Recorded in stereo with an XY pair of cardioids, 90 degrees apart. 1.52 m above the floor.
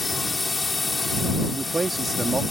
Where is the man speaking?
30° right.